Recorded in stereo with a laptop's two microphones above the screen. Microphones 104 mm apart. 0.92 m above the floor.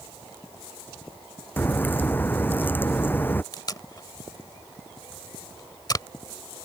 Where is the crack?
20° left (ahead or behind).